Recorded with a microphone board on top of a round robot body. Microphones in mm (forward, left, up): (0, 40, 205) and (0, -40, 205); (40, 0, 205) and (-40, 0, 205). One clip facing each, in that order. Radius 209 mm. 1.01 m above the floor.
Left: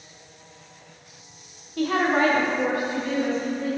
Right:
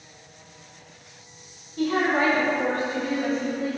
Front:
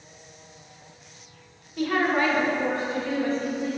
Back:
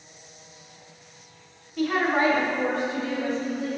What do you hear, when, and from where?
1.8 s a woman speaking: 85° left, 0.8 m; by 3.7 s 165° right, 1.3 m